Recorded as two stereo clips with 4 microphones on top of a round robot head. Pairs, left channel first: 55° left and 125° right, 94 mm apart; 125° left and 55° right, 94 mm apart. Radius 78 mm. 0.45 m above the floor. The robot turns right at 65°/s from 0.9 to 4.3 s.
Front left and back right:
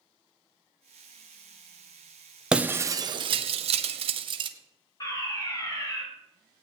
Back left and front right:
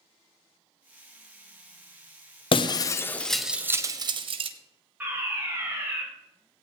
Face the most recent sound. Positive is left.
turn(degrees=10)